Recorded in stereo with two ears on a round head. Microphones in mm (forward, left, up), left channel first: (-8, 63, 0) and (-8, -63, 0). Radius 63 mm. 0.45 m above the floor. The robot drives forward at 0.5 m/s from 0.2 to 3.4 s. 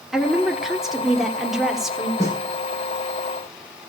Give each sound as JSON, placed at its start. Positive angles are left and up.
{"t": 0.1, "sound": "a woman speaking", "side_deg": -5, "distance_m": 1.3}
{"t": 2.2, "sound": "a snare drum", "side_deg": -20, "distance_m": 9.0}